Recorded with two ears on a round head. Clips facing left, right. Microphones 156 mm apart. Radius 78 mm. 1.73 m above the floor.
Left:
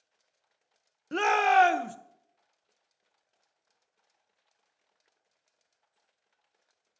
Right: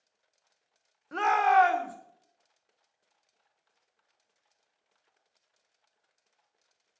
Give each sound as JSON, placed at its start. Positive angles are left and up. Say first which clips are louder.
{"t": 1.1, "sound": "a shout", "louder": "even", "side_deg": 30, "distance_m": 0.7}